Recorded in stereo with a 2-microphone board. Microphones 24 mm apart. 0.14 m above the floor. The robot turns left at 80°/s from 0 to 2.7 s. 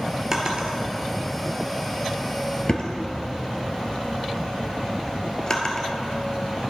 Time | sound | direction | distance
0.3 | a drawer | 30° right (ahead or behind) | 1.1 m